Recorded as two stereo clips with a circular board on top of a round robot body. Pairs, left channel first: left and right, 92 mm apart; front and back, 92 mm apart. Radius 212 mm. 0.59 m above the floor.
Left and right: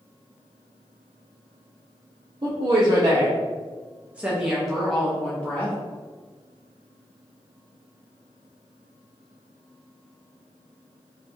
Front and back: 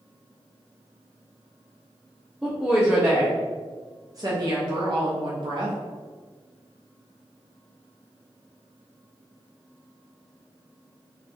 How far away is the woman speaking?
About 1.4 m.